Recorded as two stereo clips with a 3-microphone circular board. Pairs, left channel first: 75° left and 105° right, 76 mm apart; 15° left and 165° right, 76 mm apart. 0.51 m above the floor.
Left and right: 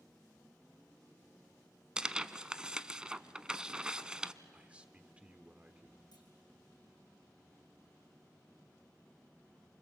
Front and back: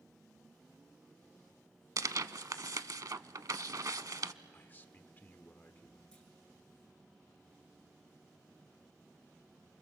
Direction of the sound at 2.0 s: Straight behind.